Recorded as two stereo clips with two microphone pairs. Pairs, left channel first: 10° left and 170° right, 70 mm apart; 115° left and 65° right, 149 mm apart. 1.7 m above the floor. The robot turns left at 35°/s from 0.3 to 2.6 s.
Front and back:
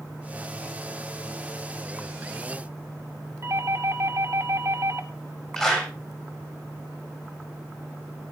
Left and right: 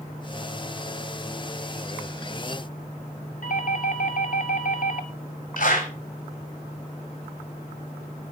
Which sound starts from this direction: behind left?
A doorbell, at 3.4 s.